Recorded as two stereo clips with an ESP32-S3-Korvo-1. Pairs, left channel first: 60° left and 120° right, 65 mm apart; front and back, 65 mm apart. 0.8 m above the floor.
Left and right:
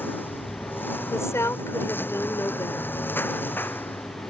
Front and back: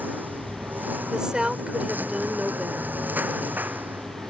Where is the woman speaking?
100° left.